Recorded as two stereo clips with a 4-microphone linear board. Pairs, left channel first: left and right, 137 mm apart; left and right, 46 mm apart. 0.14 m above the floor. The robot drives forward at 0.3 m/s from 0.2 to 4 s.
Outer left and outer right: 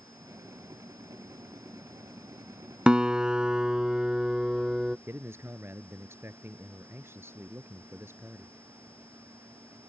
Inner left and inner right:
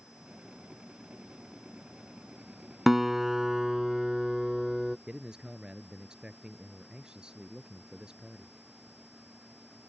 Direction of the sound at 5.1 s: 20° right (ahead or behind).